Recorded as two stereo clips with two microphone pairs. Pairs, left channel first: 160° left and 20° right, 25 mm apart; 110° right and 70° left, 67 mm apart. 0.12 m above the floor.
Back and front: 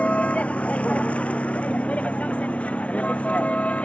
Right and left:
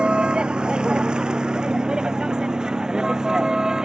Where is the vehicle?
145° left; by 3.9 s 150° left.